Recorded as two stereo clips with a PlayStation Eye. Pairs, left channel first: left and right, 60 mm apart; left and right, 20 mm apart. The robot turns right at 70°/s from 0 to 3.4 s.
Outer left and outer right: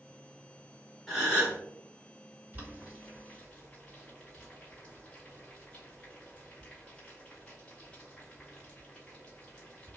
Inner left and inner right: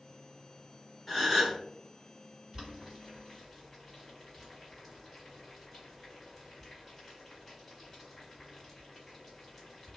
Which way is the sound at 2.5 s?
35° right (ahead or behind).